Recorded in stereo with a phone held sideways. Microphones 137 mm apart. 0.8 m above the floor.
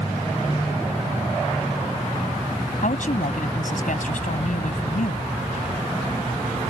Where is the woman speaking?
70° left (ahead or behind).